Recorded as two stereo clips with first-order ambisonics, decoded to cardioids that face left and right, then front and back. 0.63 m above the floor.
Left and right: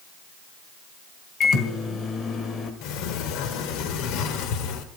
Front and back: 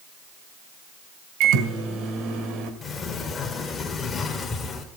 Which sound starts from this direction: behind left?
A microwave, at 1.4 s.